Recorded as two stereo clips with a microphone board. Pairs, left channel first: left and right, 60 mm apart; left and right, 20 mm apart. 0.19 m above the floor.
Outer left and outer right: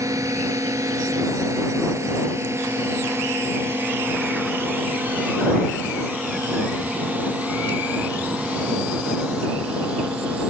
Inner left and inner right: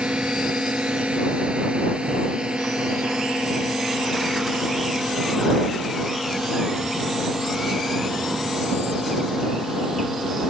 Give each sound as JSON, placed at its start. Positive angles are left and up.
{"t": 0.0, "sound": "a drone", "side_deg": -65}